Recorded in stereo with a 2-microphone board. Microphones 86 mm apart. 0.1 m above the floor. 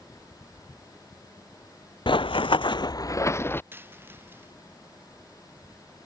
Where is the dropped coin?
25° right (ahead or behind).